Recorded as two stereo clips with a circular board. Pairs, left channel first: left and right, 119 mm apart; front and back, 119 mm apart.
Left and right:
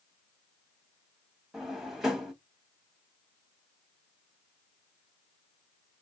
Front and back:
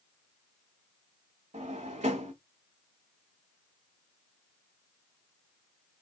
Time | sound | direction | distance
1.5 | a drawer | straight behind | 0.9 m